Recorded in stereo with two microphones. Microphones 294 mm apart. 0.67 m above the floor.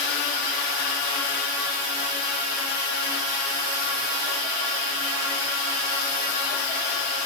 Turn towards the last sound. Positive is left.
No sound to turn to.